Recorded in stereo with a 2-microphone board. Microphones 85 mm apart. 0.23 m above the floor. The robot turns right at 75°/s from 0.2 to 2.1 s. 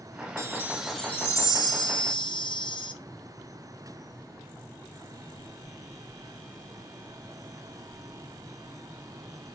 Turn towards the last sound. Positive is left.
turn(degrees=90)